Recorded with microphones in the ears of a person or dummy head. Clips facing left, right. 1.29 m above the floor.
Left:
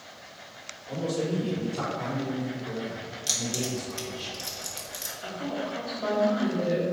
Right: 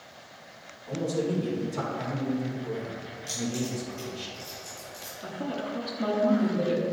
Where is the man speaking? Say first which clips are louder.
Right 1 dB; 70° right (ahead or behind), 2 m.